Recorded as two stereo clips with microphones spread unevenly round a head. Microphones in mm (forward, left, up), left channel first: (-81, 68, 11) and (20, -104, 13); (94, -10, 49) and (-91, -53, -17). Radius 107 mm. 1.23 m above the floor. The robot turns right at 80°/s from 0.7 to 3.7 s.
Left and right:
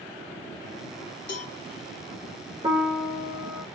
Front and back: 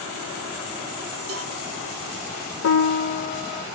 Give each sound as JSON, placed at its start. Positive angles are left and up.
{"t": 1.3, "sound": "a cowbell", "azimuth_deg": 160, "distance_m": 1.2}
{"t": 2.6, "sound": "a piano", "azimuth_deg": 10, "distance_m": 0.6}